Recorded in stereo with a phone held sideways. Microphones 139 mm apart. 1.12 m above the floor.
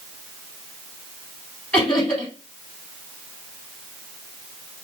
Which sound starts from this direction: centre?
Laughter, at 1.7 s.